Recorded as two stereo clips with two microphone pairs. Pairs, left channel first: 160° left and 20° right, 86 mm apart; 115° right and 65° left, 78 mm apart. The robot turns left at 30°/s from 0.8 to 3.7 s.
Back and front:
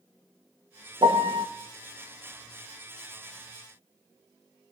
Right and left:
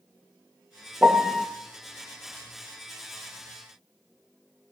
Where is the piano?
15° right, 0.5 m; by 1.5 s 30° right, 0.5 m.